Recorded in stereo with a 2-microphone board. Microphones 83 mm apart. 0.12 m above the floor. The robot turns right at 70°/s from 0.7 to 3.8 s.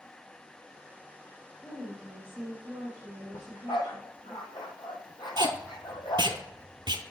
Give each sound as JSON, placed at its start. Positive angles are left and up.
{"t": 1.6, "sound": "a woman speaking", "azimuth_deg": 160, "distance_m": 2.0}
{"t": 3.3, "sound": "a dog barking", "side_deg": 40, "distance_m": 1.1}
{"t": 5.4, "sound": "tape being pulled", "side_deg": -70, "distance_m": 0.7}